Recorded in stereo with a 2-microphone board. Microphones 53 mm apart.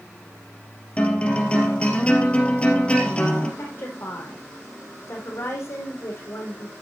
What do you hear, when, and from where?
1.0 s a guitar: 20° left (ahead or behind), 2.5 m
3.6 s a woman speaking: 60° left (ahead or behind), 4 m